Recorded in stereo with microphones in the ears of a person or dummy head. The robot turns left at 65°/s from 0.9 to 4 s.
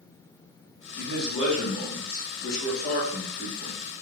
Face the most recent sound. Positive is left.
turn(degrees=-25)